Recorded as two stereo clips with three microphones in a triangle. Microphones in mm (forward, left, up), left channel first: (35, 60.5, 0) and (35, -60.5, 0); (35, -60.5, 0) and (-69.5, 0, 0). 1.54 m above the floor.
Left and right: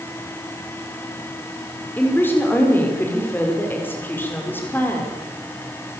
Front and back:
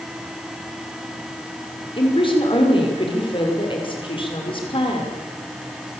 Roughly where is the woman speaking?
Ahead.